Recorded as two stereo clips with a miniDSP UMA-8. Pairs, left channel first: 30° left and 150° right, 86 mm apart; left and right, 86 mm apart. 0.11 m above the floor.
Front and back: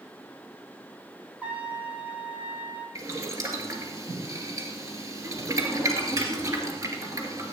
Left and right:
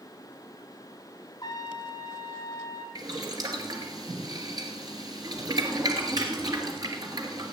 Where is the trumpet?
135° left, 1.6 m.